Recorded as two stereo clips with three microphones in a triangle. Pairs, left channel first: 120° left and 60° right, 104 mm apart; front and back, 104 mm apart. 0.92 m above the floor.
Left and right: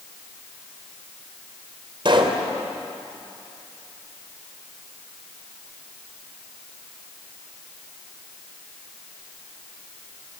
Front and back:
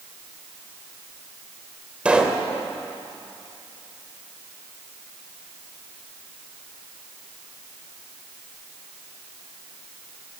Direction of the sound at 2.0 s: 100° right.